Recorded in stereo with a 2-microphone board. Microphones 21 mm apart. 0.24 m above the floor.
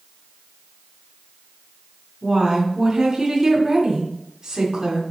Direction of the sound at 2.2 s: 45° right (ahead or behind).